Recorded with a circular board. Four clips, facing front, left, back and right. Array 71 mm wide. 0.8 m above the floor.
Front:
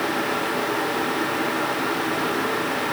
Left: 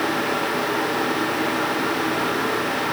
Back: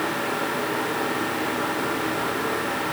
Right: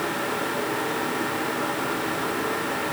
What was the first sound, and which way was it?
Only background noise.